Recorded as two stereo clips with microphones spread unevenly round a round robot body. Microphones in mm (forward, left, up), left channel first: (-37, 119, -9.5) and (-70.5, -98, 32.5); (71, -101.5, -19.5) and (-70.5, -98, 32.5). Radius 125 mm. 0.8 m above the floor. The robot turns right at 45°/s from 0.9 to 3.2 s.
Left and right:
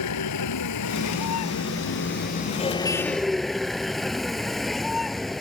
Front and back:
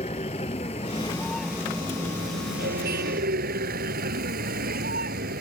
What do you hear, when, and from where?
0.0 s a vehicle: 70° left; by 5.4 s 170° left